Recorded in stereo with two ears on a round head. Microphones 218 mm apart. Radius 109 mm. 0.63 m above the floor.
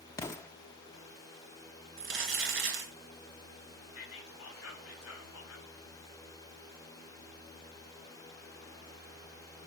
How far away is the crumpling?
About 2.5 m.